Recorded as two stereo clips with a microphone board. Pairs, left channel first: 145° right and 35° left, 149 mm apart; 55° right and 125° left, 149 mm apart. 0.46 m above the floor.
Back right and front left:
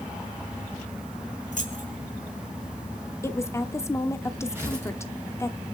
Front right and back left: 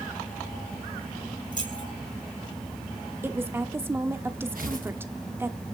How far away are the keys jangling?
About 3.5 m.